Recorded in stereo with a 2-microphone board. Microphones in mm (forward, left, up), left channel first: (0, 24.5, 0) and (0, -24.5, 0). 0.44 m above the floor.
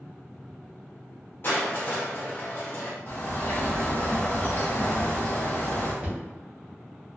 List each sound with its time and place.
1.4 s crushing: 45° left (ahead or behind), 0.7 m
3.1 s a bird: 50° left (ahead or behind), 1.1 m
6.0 s knocking: 30° right (ahead or behind), 1.4 m